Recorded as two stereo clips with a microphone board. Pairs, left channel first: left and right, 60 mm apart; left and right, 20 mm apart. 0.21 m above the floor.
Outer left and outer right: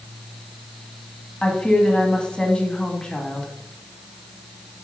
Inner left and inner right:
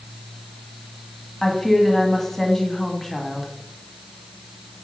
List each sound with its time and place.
1.4 s a woman speaking: 15° left (ahead or behind), 1.4 m